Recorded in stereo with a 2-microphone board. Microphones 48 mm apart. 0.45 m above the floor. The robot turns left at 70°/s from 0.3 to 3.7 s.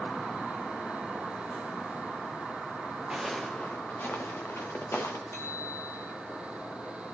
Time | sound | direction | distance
3.1 | footsteps | 15° right (ahead or behind) | 1.6 m
5.3 | a bicycle bell | 85° left | 5 m